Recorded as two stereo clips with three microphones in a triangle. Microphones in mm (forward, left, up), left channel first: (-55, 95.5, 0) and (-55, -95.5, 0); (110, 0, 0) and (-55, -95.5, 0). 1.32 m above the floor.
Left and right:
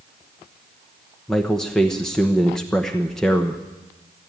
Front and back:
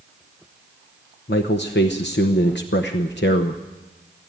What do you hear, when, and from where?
1.3 s a man speaking: 5° left, 0.9 m